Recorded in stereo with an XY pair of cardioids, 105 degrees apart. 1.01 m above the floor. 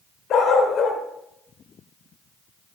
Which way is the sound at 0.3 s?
70° left.